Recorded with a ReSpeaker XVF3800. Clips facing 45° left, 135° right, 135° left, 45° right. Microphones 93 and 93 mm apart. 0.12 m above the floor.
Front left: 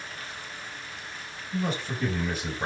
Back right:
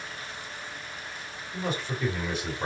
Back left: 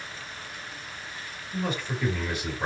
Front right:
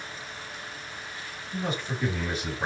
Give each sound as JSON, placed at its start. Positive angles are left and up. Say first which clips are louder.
{"t": 1.5, "sound": "a man speaking", "louder": "front left 2 dB, back left 1 dB", "azimuth_deg": 20, "distance_m": 1.9}